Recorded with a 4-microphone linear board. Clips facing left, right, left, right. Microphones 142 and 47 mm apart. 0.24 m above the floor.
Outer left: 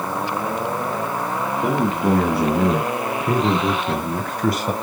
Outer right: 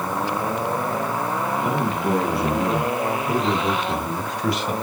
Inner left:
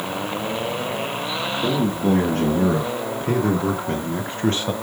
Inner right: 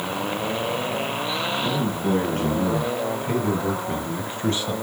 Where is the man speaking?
75° left (ahead or behind), 3.5 m; by 4.7 s 35° left (ahead or behind), 1.2 m.